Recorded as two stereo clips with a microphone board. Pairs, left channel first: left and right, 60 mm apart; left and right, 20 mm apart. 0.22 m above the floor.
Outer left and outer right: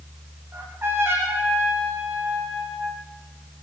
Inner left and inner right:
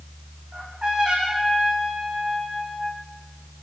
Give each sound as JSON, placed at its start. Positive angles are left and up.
{"t": 0.5, "sound": "a trumpet", "side_deg": -45, "distance_m": 9.5}